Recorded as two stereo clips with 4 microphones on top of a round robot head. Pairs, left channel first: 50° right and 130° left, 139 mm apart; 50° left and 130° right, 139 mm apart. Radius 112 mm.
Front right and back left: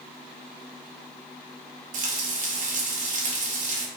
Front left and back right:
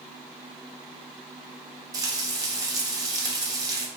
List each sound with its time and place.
1.9 s frying: 165° left, 0.7 m